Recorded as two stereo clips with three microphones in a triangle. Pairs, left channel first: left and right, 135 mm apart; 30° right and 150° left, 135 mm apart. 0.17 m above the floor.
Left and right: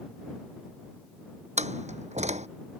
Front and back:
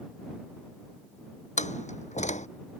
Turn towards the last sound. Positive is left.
turn(degrees=-60)